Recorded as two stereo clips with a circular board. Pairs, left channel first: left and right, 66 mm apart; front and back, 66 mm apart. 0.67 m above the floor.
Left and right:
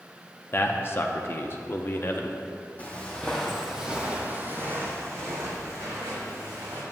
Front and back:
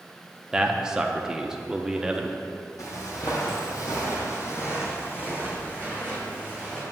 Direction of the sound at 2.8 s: 25° left.